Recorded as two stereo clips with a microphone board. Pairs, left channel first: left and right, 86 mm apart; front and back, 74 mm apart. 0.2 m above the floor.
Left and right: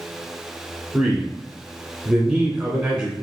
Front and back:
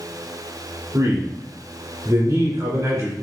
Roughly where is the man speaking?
Behind.